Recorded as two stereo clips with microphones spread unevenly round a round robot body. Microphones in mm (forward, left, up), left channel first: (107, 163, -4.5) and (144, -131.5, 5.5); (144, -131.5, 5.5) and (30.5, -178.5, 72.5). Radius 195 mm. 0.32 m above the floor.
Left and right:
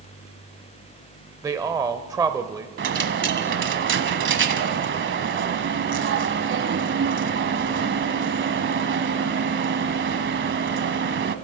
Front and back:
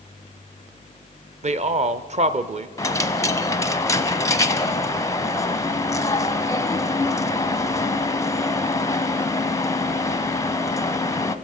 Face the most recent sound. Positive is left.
turn(degrees=-30)